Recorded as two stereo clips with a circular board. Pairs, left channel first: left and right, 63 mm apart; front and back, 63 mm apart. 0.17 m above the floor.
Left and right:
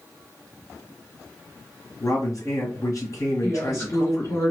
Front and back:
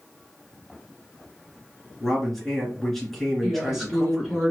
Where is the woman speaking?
90° left, 2.0 m.